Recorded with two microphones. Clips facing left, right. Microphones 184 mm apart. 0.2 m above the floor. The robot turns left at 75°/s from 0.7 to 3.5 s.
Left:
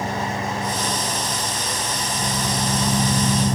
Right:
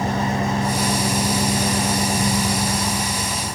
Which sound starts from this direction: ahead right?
An engine running, at 0.0 s.